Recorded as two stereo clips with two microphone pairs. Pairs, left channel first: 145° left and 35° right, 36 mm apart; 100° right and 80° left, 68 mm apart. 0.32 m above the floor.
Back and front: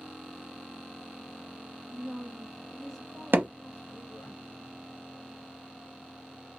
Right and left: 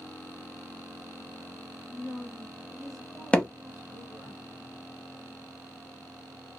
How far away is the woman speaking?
About 1.3 m.